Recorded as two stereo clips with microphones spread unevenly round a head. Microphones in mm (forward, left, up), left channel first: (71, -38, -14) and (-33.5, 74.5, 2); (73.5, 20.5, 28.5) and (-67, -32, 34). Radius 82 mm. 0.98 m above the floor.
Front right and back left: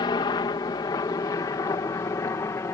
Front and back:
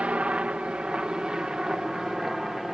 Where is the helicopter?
80° right; by 2.8 s 70° right.